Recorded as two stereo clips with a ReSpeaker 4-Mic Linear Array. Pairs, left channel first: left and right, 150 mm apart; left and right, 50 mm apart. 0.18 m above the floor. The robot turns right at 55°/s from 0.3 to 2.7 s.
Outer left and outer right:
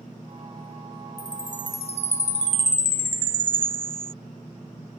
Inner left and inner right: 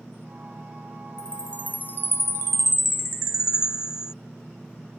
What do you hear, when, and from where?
1.2 s a chime: 20° left; by 4.1 s 105° left